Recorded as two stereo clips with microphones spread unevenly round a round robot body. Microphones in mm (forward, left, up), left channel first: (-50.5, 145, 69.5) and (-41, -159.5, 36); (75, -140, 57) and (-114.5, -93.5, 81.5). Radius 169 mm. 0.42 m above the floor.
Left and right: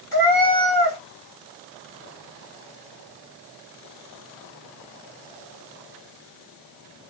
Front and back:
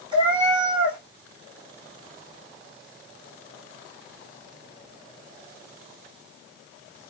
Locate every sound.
0.1 s a cat meowing: 90° left, 2.5 m